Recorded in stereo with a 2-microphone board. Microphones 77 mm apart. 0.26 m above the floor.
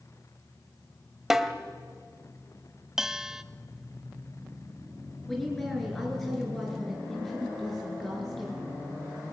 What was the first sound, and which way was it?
A snare drum, 5° right (ahead or behind).